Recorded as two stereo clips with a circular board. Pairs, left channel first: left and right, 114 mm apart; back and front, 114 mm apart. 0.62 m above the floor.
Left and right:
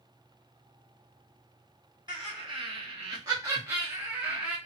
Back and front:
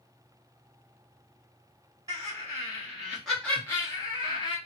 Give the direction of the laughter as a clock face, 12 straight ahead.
2 o'clock.